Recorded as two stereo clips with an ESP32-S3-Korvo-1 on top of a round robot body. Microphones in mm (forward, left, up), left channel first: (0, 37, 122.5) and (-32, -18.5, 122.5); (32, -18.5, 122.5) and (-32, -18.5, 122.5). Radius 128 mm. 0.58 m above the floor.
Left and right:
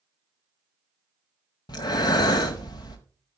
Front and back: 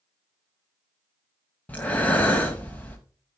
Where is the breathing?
70° left, 0.7 m.